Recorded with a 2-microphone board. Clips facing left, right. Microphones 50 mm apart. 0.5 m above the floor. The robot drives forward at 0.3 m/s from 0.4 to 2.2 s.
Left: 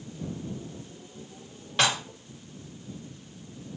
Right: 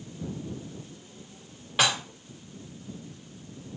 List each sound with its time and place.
1.8 s dishes clattering: 5° right (ahead or behind), 0.8 m